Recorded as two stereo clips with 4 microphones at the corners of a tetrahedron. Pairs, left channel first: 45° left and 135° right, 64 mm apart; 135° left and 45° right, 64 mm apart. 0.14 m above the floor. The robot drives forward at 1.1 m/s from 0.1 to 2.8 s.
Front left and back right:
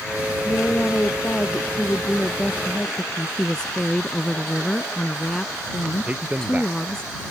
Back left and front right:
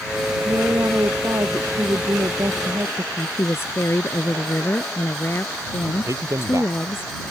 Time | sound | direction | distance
0.5 | a woman speaking | 15° right | ?
3.4 | a woman speaking | 120° left | ?
6.1 | a man speaking | 70° right | ?